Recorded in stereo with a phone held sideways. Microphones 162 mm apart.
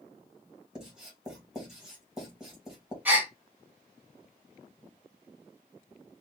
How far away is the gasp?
About 1.4 m.